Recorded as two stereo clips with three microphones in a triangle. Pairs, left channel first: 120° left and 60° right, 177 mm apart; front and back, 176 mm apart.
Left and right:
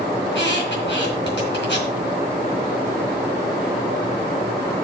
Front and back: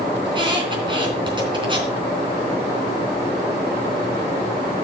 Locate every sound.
0.2 s a squeak: 115° left, 3 m